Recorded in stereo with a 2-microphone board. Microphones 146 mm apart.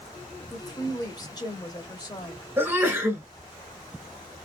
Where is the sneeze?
15° right (ahead or behind), 1.7 m.